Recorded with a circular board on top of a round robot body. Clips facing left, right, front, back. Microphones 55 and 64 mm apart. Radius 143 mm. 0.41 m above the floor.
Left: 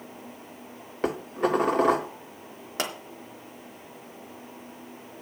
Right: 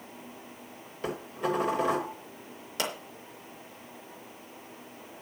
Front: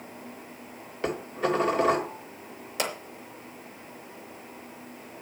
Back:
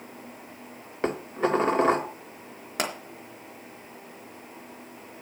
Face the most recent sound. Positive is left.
turn(degrees=145)